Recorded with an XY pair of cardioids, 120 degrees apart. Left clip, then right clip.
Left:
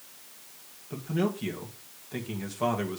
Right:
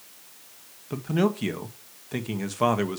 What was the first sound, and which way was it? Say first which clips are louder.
A man speaking: right 5 dB; 35° right.